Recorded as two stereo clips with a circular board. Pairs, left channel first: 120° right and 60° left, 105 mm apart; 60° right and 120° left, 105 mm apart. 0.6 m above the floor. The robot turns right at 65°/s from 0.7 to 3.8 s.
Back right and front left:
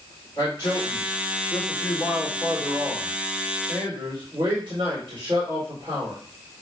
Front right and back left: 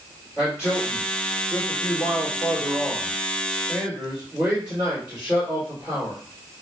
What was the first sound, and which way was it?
A man speaking, 160° right.